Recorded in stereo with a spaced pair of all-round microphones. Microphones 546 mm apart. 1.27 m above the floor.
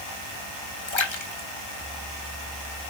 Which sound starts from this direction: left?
A splash, at 0.9 s.